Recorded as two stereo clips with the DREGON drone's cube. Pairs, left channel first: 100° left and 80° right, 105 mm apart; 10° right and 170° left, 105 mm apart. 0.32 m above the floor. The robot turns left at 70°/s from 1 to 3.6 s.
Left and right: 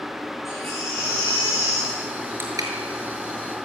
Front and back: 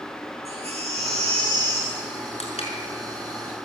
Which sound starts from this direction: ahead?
Crushing, at 2.4 s.